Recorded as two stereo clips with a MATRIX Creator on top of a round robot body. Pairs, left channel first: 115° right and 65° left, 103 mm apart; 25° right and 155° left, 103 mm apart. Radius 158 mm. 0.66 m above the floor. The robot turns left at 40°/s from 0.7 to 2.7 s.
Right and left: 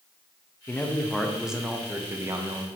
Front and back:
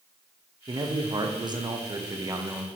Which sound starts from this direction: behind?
A man speaking, at 0.7 s.